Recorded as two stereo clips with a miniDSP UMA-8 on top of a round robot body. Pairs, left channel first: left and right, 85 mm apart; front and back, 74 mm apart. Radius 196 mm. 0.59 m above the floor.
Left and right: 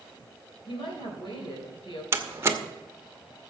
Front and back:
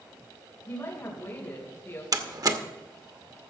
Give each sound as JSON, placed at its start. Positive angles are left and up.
{"t": 0.7, "sound": "a woman speaking", "azimuth_deg": 65, "distance_m": 3.0}
{"t": 2.1, "sound": "a door slam", "azimuth_deg": -150, "distance_m": 1.3}